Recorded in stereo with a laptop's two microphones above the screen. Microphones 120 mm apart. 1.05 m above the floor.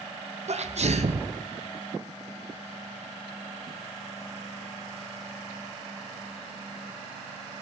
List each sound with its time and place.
0.5 s a sneeze: 65° right (ahead or behind), 0.6 m